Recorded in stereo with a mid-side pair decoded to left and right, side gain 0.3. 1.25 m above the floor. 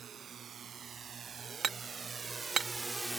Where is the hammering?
65° right.